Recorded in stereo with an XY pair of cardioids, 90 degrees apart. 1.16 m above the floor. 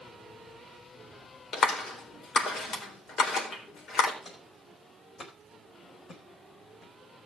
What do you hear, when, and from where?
1.5 s a clap: 65° left, 4 m
4.2 s footsteps: 45° left, 4.5 m